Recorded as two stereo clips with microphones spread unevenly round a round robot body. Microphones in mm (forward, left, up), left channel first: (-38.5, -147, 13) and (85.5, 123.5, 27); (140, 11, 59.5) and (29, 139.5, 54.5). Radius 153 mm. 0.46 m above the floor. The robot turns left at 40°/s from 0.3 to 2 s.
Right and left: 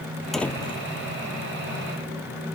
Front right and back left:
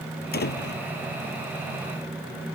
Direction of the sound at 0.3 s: 25° right.